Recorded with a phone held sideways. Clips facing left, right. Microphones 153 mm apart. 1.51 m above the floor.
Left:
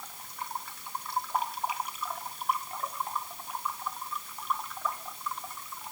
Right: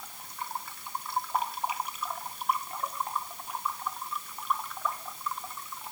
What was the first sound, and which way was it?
Only background noise.